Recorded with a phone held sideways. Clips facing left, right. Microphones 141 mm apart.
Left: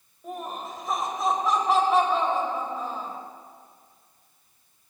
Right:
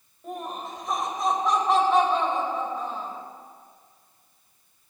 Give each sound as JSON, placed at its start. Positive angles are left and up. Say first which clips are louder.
{"t": 0.2, "sound": "laughter", "louder": "even", "side_deg": 0, "distance_m": 3.5}